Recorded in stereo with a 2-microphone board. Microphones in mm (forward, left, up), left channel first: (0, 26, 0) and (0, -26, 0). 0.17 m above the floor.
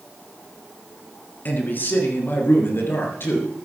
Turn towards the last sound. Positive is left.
turn(degrees=50)  # may be behind; listen again after turning